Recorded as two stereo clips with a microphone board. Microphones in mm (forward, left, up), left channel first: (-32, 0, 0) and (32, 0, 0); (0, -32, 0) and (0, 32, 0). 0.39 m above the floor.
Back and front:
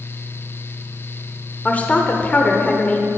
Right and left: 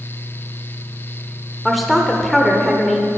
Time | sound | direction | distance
1.6 | a woman speaking | straight behind | 0.9 m